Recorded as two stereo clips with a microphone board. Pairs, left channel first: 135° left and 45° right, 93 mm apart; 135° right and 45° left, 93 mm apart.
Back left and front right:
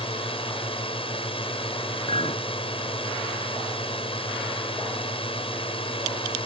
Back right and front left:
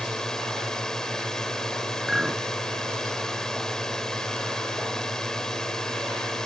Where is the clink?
130° left.